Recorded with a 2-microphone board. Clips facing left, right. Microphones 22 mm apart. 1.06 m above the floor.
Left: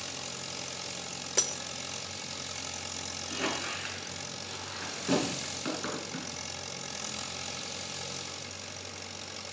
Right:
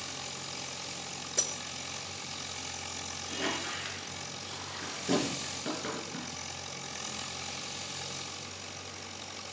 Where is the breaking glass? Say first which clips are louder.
Left 3 dB; 60° left (ahead or behind), 1.0 m.